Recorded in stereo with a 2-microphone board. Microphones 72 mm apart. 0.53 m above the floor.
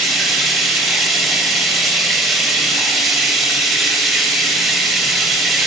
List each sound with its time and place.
0.0 s running water: centre (ahead or behind), 1.9 m